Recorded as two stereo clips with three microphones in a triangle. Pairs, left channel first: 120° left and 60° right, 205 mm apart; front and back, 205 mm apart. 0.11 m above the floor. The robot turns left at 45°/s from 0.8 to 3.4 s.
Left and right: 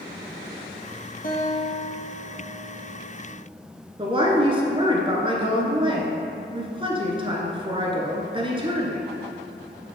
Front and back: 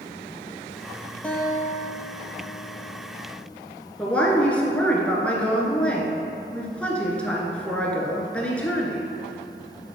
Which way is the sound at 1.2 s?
85° left.